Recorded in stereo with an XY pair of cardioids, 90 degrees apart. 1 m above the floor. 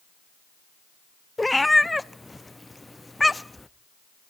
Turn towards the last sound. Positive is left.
turn(degrees=15)